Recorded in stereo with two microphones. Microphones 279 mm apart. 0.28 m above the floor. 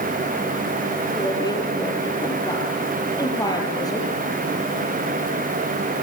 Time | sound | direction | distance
1.1 | a woman speaking | 15° left (ahead or behind) | 6 m